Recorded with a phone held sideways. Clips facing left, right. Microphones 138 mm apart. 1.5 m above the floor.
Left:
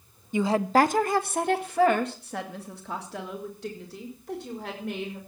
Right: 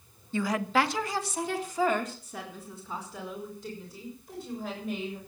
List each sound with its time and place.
0.3 s a woman speaking: 15° left (ahead or behind), 0.7 m; by 5.2 s 80° left, 5.5 m